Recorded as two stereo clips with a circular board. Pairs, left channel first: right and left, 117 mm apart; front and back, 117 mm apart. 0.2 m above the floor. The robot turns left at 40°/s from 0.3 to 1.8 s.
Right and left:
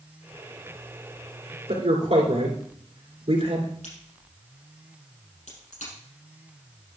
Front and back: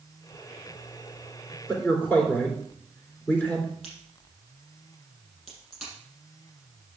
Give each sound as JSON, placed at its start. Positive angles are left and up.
{"t": 1.7, "sound": "a man speaking", "azimuth_deg": 80, "distance_m": 3.0}
{"t": 3.8, "sound": "a crack", "azimuth_deg": -90, "distance_m": 5.5}